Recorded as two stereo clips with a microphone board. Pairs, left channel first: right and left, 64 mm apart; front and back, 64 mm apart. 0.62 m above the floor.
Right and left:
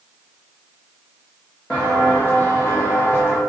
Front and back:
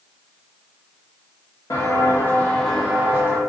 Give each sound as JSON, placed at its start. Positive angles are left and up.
{"t": 1.7, "sound": "footsteps", "azimuth_deg": -20, "distance_m": 1.1}